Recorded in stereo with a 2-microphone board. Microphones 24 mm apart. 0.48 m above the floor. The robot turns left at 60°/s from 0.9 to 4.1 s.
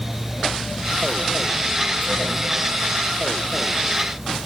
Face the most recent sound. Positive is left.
No sound to turn to.